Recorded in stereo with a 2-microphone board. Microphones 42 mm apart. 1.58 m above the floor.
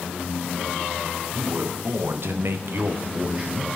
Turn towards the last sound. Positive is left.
turn(degrees=-15)  # may be behind; listen again after turning